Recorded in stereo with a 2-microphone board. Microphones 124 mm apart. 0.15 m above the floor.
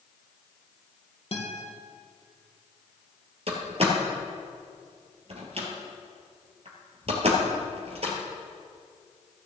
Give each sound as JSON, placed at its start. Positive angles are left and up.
{"t": 1.3, "sound": "a guitar", "side_deg": 50, "distance_m": 2.5}
{"t": 3.5, "sound": "a door slam", "side_deg": -50, "distance_m": 2.5}